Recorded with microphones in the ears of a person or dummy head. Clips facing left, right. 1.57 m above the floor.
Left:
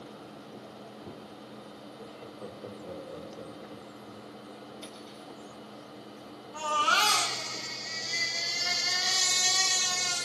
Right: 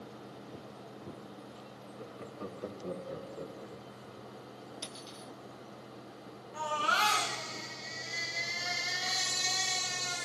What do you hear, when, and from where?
2.0 s laughter: 75° right (ahead or behind), 2.5 m; by 4.2 s 50° right (ahead or behind), 3.5 m
4.8 s cutlery clinking: 55° right (ahead or behind), 2 m
6.5 s a baby crying: 10° right (ahead or behind), 6.5 m